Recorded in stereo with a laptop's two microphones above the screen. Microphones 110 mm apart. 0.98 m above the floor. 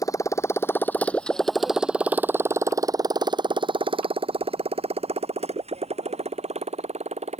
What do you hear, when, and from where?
0.0 s a motorcycle: 30° left (ahead or behind); by 7.4 s 80° right